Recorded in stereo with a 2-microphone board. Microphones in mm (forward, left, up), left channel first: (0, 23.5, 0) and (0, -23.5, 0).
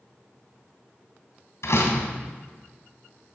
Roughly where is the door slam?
Left.